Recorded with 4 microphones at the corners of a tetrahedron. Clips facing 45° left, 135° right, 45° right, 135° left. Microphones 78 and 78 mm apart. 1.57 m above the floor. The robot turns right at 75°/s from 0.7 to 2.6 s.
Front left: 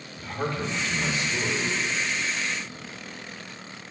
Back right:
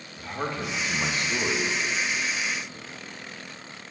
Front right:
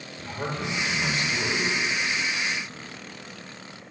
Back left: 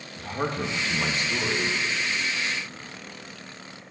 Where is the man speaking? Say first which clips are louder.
Front left 1 dB, back left 3 dB; 150° left, 2.0 m; by 1.8 s 130° right, 2.0 m.